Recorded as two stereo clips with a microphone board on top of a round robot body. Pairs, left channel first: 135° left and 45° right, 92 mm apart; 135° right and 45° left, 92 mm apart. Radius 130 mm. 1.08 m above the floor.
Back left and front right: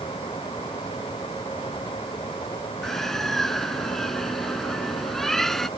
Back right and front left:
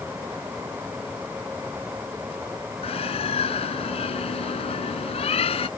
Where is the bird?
140° right.